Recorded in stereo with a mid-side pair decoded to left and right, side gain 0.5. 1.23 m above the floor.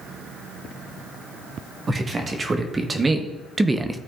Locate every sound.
1.9 s a man speaking: 30° right, 1.7 m; by 4.0 s 10° right, 0.7 m